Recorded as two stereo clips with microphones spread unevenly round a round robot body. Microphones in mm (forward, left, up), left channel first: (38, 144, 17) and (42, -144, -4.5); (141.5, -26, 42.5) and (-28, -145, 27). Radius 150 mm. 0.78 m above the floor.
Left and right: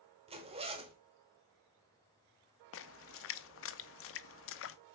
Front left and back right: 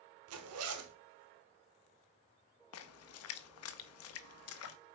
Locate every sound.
0.3 s a zipper: 160° right, 1.0 m
2.7 s a splash: 45° left, 0.6 m